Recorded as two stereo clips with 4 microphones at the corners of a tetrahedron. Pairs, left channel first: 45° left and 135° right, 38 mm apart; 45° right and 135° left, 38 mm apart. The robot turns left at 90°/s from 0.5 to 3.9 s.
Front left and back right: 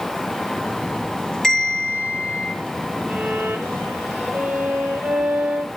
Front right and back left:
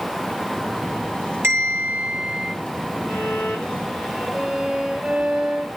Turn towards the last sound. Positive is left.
turn(degrees=-145)